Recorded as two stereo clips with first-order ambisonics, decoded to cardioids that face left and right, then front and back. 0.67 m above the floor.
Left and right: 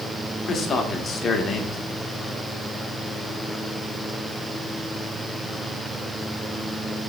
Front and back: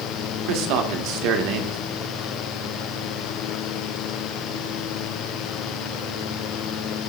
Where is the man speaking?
155° left, 1.5 m.